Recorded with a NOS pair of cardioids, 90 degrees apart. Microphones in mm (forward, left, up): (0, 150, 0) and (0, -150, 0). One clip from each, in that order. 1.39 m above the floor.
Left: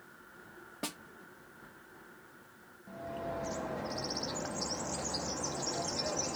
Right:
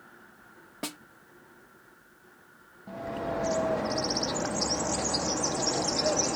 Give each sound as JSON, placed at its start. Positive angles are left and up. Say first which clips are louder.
{"t": 0.8, "sound": "a snare drum", "louder": "right 3 dB", "azimuth_deg": -15, "distance_m": 0.9}
{"t": 2.9, "sound": "a bird", "louder": "right 6 dB", "azimuth_deg": -40, "distance_m": 0.7}